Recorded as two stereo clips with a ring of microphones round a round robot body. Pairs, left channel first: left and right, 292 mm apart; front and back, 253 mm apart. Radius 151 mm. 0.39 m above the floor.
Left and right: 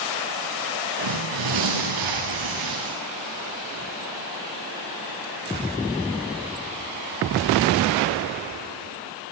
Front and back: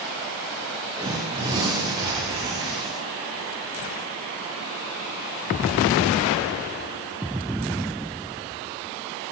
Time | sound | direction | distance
1.0 | tearing paper | 105° right | 7 m